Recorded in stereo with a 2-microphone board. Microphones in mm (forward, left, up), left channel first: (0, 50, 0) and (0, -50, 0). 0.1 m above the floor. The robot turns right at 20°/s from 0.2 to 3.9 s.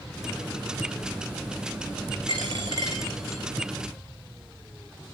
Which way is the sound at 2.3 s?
50° right (ahead or behind).